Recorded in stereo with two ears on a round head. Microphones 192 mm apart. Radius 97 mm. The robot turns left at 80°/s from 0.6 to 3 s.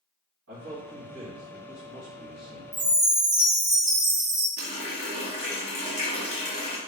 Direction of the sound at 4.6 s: 30° left (ahead or behind).